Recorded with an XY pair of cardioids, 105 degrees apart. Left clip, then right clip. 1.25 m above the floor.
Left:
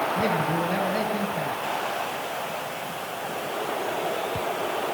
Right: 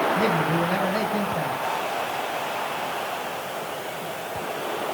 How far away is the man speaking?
About 6 m.